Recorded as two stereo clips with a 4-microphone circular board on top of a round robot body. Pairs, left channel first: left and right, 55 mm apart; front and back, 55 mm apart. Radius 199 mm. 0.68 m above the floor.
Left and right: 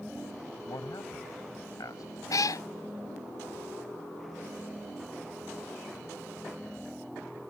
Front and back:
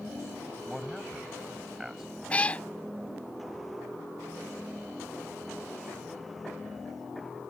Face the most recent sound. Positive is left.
turn(degrees=70)